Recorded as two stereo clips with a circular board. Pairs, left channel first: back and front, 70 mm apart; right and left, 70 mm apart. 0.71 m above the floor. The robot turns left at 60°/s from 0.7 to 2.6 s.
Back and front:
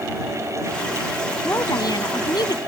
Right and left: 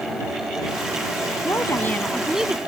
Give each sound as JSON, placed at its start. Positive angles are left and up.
{"t": 1.4, "sound": "a woman speaking", "azimuth_deg": -130}